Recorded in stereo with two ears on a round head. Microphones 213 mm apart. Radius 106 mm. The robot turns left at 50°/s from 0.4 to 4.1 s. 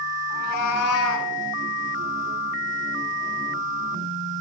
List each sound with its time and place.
0.3 s a cat meowing: 90° left, 1.9 m; by 1.3 s 45° left, 1.9 m